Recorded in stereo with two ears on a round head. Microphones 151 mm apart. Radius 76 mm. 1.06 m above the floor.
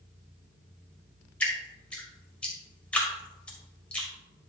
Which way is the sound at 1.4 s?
10° left (ahead or behind).